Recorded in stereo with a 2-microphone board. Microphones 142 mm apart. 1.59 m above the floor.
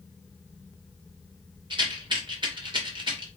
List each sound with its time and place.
1.7 s a rattle: 35° right (ahead or behind), 2.5 m